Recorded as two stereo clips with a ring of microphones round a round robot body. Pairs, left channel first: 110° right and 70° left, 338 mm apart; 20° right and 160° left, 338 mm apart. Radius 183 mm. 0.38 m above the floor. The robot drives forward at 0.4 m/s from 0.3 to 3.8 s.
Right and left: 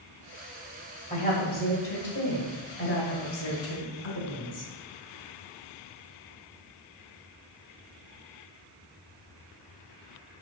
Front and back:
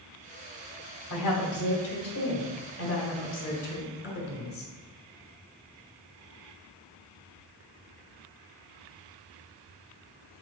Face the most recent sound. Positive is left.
turn(degrees=-75)